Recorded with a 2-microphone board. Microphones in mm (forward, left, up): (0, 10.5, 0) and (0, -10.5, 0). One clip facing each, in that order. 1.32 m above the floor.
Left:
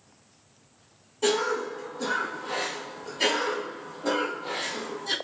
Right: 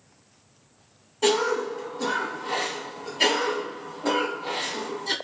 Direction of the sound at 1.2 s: 20° right (ahead or behind).